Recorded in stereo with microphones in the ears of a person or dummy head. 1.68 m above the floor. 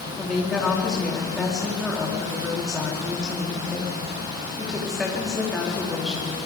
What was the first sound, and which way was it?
A woman speaking, centre (ahead or behind).